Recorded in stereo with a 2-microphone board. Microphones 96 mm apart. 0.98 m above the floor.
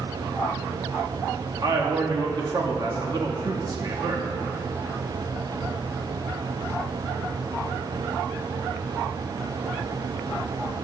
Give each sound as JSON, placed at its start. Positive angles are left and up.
{"t": 1.6, "sound": "a man speaking", "side_deg": -45, "distance_m": 1.6}